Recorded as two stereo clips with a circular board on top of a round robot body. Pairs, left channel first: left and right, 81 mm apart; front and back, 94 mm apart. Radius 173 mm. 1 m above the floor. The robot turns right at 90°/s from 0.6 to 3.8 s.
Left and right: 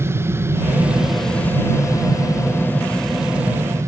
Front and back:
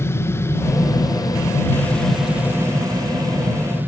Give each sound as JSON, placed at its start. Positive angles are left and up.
{"t": 0.0, "sound": "an aircraft", "azimuth_deg": -50}